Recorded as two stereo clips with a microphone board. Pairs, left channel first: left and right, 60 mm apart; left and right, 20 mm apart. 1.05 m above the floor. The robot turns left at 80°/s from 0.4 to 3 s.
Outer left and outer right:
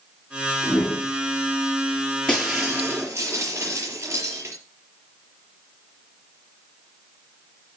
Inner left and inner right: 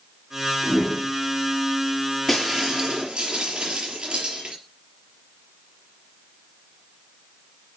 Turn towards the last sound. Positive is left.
turn(degrees=-45)